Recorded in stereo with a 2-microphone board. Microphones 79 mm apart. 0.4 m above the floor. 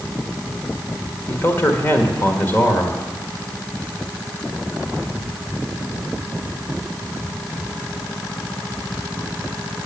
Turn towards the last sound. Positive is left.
turn(degrees=30)  # may be behind; listen again after turning